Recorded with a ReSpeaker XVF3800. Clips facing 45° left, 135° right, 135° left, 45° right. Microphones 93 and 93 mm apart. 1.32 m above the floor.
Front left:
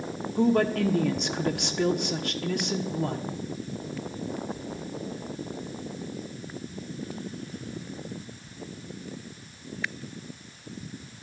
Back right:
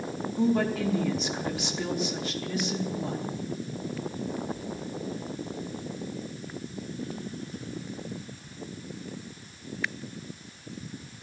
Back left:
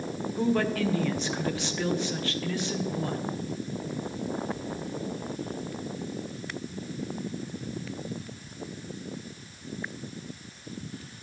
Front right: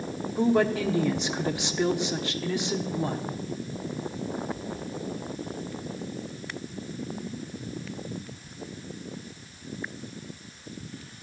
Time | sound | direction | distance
0.4 | a woman speaking | 25° left | 1.0 m